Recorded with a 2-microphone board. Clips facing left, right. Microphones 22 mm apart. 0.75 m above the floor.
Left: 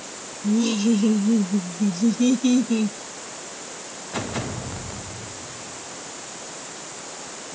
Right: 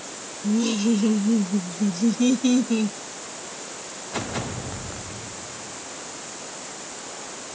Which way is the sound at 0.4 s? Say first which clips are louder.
Left 1 dB; 5° left (ahead or behind).